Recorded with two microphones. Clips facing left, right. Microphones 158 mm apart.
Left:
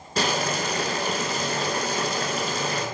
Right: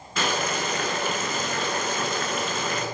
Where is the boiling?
40° left (ahead or behind), 1.1 m.